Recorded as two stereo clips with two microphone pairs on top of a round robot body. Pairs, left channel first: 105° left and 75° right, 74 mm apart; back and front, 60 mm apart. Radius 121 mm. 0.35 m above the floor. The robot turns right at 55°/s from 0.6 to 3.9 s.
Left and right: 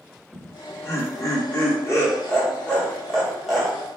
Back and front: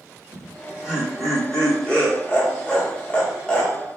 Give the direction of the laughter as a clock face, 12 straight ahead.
10 o'clock.